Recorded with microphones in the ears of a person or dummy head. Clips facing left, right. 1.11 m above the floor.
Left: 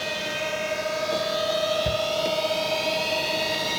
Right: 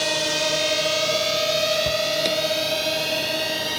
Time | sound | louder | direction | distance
0.0 | a drone | right 5 dB | 65° right (ahead or behind) | ?
1.9 | a shout | right 1 dB | 15° left (ahead or behind) | ?